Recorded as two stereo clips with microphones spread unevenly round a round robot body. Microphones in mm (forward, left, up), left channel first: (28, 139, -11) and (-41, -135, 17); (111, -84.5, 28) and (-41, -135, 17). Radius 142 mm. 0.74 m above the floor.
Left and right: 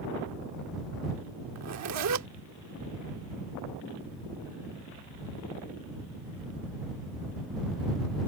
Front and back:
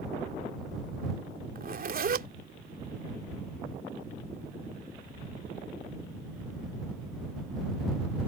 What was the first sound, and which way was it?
A zipper, 140° right.